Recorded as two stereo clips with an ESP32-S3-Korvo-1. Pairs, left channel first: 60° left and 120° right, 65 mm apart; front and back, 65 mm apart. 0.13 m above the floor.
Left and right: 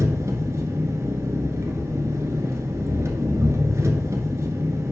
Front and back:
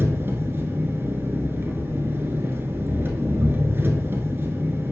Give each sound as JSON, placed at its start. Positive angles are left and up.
{"t": 0.0, "sound": "an engine running", "azimuth_deg": -140, "distance_m": 1.1}